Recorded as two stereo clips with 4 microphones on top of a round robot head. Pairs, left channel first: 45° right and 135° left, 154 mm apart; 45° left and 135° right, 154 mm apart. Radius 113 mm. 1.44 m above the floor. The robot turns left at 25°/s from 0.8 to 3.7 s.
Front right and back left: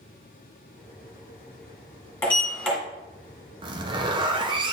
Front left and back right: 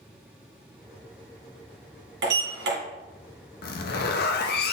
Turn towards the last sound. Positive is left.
turn(degrees=70)